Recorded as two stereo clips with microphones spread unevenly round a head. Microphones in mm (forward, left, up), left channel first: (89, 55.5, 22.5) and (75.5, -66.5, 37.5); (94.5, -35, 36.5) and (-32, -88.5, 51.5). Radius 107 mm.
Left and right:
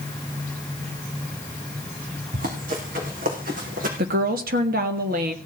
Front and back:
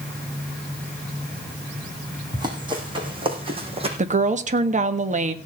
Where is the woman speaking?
120° right, 1.6 m.